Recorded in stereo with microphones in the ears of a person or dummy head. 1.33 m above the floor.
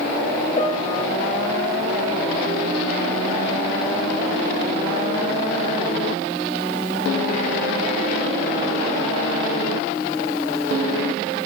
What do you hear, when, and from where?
0.6 s a piano: 35° left (ahead or behind), 0.9 m